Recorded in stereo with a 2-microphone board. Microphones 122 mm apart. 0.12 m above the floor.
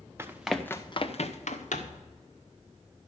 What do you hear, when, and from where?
0.2 s running footsteps: 20° right (ahead or behind), 1.2 m; by 2.0 s 90° left, 2 m